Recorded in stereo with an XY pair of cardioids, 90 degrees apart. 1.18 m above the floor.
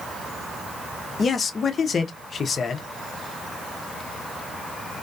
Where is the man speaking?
50° left, 0.6 m.